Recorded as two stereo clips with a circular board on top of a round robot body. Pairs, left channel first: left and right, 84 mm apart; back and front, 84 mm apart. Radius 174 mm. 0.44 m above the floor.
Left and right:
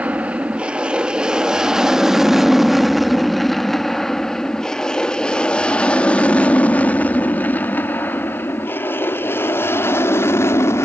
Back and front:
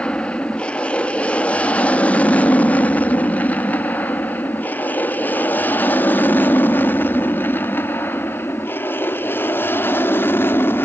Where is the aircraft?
130° right; by 10.9 s 130° left.